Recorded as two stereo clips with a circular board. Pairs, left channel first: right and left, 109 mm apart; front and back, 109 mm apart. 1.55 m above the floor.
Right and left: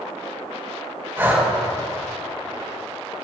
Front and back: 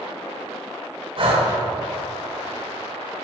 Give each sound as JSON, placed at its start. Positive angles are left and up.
{"t": 1.2, "sound": "breathing", "azimuth_deg": 155, "distance_m": 2.0}